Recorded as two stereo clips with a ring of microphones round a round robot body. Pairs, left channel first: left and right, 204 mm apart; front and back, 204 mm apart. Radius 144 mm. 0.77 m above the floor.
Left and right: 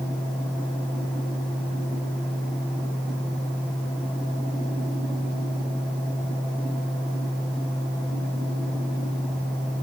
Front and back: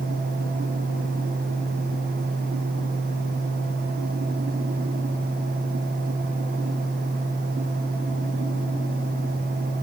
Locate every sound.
Only background noise.